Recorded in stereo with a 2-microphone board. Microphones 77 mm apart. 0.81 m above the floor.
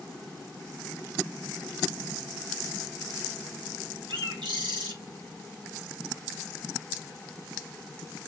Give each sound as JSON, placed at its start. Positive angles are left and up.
{"t": 4.1, "sound": "a bird", "side_deg": -75, "distance_m": 1.7}